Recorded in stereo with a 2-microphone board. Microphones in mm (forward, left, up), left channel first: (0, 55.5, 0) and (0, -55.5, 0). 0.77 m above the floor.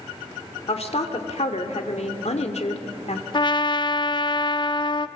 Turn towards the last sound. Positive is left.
turn(degrees=40)  # may be behind; listen again after turning